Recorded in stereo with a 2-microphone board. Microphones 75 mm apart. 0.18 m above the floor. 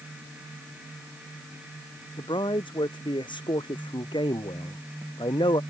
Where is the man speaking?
85° left.